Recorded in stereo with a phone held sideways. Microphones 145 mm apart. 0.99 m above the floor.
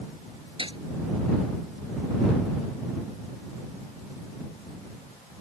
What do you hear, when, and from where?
0.6 s a gunshot: 35° right (ahead or behind)